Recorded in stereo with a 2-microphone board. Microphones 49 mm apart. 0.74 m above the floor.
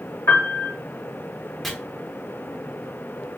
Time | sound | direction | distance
0.3 | a piano | 60° left (ahead or behind) | 1.3 m
1.6 | chopping | 5° left (ahead or behind) | 0.9 m